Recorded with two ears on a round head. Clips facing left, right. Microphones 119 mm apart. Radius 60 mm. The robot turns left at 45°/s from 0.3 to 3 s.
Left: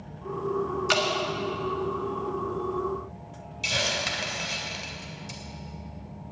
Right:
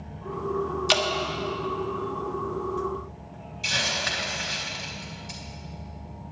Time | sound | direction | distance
0.9 | dripping | 35° right (ahead or behind) | 1.3 m
3.6 | a hiss | 25° left (ahead or behind) | 1.9 m